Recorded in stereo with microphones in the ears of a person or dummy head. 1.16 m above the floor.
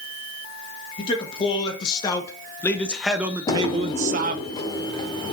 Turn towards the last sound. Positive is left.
turn(degrees=25)  # may be behind; listen again after turning